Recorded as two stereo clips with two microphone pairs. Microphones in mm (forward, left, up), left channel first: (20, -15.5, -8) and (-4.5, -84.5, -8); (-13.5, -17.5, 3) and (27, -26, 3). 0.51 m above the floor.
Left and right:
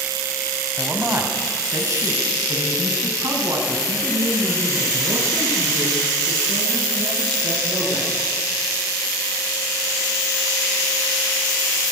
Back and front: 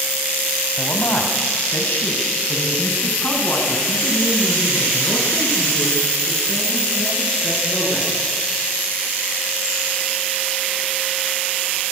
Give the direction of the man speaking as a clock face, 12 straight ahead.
6 o'clock.